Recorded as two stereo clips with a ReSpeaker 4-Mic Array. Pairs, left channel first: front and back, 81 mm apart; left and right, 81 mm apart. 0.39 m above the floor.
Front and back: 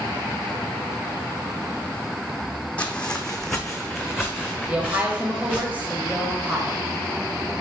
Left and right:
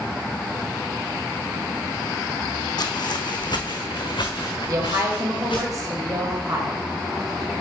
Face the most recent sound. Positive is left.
turn(degrees=-115)